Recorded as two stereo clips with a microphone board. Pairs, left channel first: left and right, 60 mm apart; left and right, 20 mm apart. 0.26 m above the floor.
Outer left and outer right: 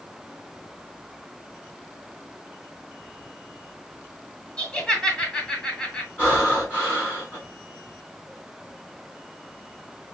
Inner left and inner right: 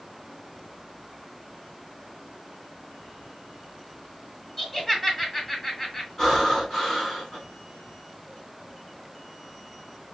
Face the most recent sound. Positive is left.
turn(degrees=35)  # may be behind; listen again after turning